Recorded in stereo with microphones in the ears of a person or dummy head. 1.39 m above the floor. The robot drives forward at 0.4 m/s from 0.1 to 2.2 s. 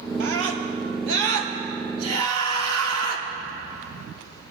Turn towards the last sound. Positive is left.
turn(degrees=-85)